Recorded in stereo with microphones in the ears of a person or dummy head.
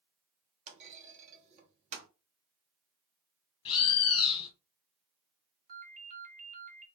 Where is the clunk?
45° right (ahead or behind), 0.7 m.